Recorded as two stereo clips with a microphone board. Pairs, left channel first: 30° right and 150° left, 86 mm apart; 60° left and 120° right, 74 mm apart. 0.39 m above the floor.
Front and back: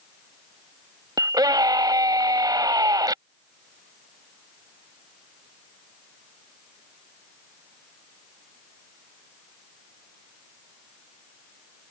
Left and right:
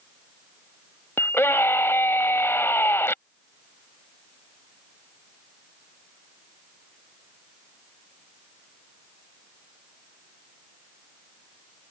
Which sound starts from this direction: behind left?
A scream, at 1.2 s.